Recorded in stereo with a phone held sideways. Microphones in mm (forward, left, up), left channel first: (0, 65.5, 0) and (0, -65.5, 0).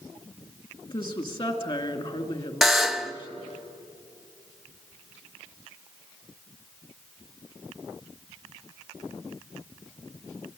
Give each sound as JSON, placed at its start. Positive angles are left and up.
{"t": 0.8, "sound": "a woman speaking", "side_deg": 40, "distance_m": 2.5}
{"t": 2.6, "sound": "a buzzer", "side_deg": 0, "distance_m": 0.9}